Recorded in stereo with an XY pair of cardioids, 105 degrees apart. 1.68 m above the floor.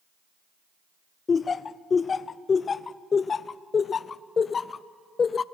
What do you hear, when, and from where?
1.3 s laughter: 35° left, 0.6 m